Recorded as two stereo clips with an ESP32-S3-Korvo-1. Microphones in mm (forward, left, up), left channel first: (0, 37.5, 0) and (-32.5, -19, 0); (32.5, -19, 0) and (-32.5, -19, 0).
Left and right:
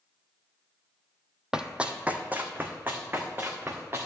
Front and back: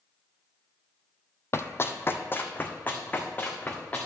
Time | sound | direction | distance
1.5 | running footsteps | 45° right | 0.5 m